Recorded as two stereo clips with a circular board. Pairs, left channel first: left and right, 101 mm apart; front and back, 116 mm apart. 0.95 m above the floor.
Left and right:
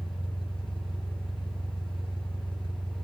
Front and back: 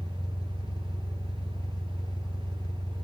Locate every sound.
0.0 s an engine running: 55° left, 2.5 m